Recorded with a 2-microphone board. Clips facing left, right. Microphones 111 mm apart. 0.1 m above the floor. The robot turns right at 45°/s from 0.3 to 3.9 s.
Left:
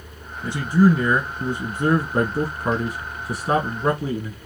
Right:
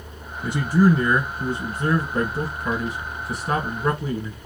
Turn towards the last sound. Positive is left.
turn(degrees=145)